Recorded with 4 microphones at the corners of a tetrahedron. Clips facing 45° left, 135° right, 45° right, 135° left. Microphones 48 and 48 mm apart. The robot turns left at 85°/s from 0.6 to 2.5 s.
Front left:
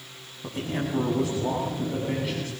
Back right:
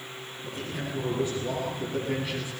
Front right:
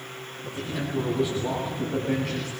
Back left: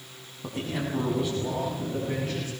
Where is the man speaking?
100° left, 6.5 m; by 2.5 s 65° right, 6.5 m.